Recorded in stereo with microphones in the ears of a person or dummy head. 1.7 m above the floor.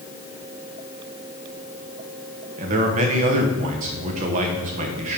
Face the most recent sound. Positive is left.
turn(degrees=-45)  # may be behind; listen again after turning